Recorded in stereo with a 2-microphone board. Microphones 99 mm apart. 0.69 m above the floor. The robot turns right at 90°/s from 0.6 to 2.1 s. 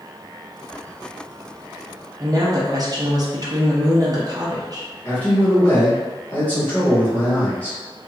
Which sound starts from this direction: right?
A woman speaking, at 2.2 s.